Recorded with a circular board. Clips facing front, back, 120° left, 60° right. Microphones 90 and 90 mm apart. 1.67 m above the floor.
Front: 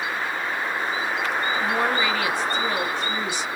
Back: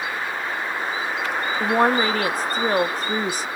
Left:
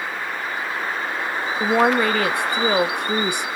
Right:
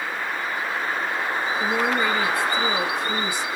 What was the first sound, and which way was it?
A woman speaking, 140° left.